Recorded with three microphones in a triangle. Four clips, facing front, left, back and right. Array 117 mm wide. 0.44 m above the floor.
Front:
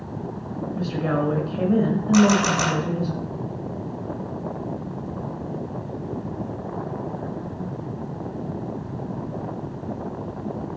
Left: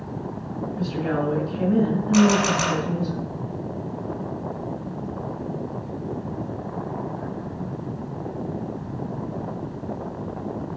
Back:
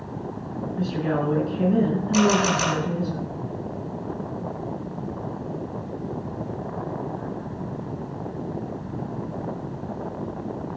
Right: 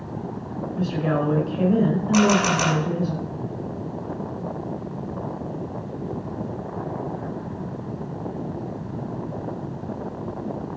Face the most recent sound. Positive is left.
turn(degrees=0)